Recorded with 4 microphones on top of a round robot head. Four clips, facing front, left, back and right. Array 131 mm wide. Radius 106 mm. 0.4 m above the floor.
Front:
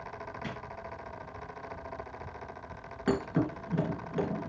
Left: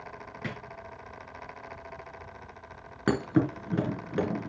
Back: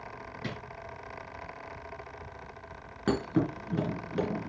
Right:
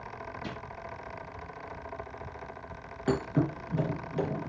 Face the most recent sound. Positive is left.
turn(degrees=100)